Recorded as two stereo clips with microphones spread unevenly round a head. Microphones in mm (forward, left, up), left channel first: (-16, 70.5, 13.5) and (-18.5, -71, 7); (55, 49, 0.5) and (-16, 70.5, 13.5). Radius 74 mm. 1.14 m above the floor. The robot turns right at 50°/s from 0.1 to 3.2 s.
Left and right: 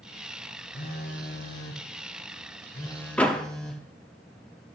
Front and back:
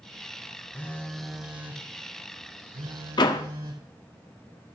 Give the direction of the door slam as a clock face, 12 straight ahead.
12 o'clock.